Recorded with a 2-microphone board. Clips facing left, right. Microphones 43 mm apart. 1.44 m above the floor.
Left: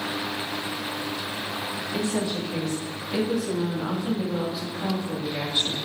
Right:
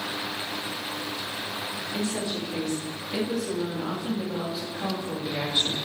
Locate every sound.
1.9 s a woman speaking: 15° left (ahead or behind), 3.5 m; by 5.8 s 20° right (ahead or behind), 3.5 m